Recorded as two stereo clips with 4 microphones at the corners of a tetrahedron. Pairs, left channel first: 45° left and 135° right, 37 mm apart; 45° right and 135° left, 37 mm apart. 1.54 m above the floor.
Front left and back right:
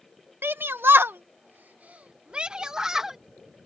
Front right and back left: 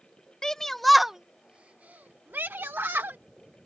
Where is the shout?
120° right; by 3.2 s 145° left.